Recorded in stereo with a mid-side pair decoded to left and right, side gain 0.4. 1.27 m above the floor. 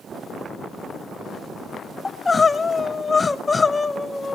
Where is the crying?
25° left, 0.7 m.